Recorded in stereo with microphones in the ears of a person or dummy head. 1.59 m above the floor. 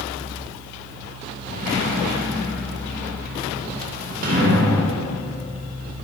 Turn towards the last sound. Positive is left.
turn(degrees=-50)  # may be behind; listen again after turning